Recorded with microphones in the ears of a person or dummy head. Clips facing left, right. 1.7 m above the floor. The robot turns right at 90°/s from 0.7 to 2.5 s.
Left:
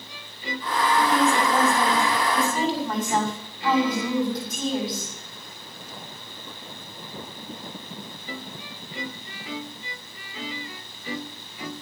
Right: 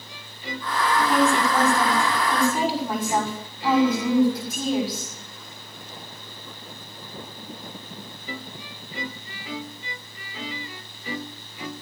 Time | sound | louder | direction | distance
1.1 | a woman speaking | right 1 dB | 130° right | 6 m